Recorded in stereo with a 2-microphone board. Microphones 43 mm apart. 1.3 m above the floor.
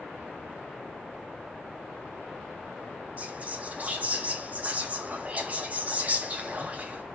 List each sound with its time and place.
3.2 s whispering: 35° right (ahead or behind), 0.7 m